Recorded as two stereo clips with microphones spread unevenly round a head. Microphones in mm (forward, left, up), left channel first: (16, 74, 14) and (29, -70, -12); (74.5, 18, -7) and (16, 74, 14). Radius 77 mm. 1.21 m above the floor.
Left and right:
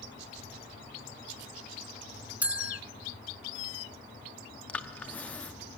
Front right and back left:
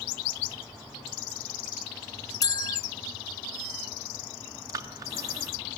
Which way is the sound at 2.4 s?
5° left.